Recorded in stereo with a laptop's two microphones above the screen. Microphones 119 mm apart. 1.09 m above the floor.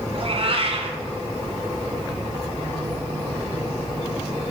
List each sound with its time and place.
0.1 s a cat meowing: 55° right (ahead or behind), 2 m